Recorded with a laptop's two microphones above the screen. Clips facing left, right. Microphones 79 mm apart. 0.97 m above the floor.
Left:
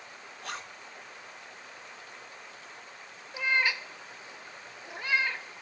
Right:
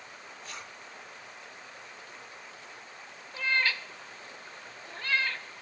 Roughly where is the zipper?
Left.